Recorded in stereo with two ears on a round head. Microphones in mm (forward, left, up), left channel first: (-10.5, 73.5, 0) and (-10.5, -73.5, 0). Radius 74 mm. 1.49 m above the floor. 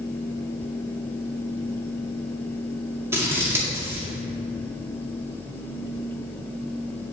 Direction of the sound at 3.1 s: 15° right (ahead or behind).